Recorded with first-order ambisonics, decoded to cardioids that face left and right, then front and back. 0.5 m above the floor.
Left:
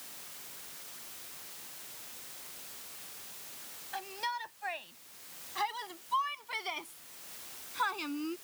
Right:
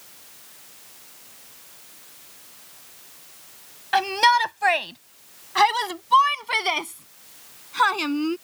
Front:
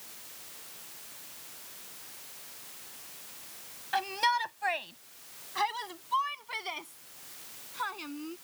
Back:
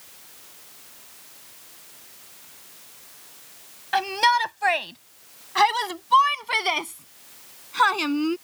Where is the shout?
115° right; by 8.4 s 140° right.